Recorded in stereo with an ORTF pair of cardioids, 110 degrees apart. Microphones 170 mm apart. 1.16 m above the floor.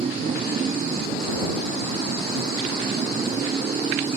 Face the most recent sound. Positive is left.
turn(degrees=-35)